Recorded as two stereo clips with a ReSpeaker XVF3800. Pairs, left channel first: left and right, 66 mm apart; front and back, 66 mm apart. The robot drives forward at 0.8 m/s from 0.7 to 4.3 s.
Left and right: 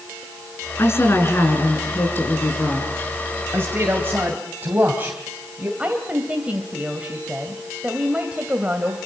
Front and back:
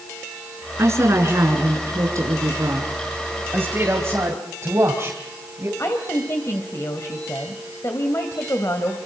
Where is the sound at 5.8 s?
25° right, 2 m.